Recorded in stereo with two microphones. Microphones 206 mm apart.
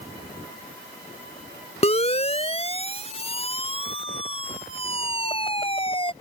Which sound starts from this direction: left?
A siren, at 1.8 s.